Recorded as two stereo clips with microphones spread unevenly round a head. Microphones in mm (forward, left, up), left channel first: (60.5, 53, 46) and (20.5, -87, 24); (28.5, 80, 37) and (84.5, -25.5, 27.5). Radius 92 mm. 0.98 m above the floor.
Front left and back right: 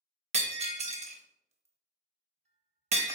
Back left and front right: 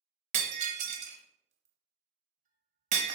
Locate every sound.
0.3 s breaking glass: 65° right, 0.7 m